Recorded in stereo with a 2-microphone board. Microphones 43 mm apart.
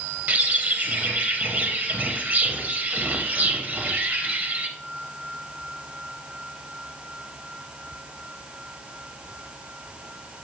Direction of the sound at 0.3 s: 45° right (ahead or behind).